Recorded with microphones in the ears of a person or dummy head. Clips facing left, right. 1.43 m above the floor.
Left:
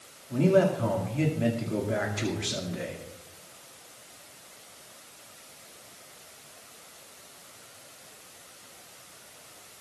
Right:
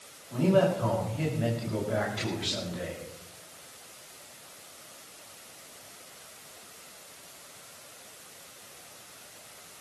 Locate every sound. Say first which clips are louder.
0.3 s a man speaking: left 2 dB; 35° left (ahead or behind), 2.5 m